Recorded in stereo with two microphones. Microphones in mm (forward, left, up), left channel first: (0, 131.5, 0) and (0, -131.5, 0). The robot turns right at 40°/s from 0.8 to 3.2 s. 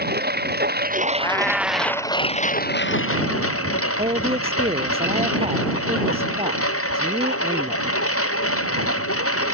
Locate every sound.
0.0 s a lawn mower: 40° right; by 9.5 s 60° left
1.2 s a cat meowing: 165° left; by 2.1 s 155° right
4.0 s a man speaking: 25° right (ahead or behind)